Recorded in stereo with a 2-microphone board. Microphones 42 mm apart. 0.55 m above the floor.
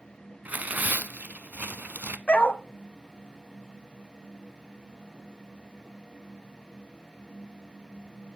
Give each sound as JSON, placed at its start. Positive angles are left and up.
{"t": 0.5, "sound": "tearing paper", "side_deg": -45, "distance_m": 0.7}
{"t": 2.3, "sound": "a dog barking", "side_deg": 30, "distance_m": 1.3}